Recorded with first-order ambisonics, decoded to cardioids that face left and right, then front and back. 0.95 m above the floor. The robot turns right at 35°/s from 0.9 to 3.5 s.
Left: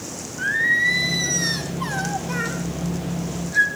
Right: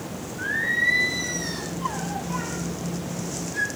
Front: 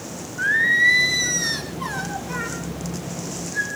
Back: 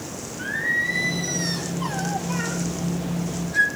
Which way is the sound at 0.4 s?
20° left.